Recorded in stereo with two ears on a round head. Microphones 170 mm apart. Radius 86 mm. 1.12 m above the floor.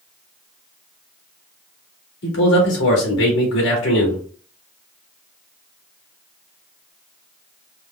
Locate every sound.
2.2 s a man speaking: 70° left (ahead or behind), 1.9 m